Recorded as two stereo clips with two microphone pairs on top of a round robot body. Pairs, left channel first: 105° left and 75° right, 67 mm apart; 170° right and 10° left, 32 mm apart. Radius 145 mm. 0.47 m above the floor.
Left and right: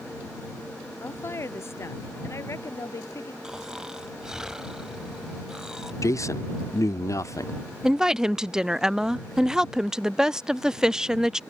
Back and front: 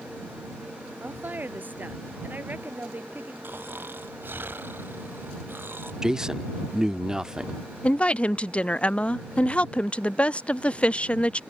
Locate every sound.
1.0 s a woman speaking: 50° left; by 3.3 s 55° left
3.4 s snoring: 5° left
6.0 s a man speaking: 80° left
7.8 s a woman speaking: 155° right